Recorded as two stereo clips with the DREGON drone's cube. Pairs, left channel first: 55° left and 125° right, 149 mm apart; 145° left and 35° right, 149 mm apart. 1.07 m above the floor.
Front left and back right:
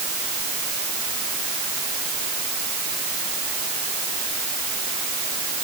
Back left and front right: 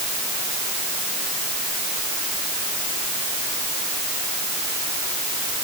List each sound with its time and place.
Only background noise.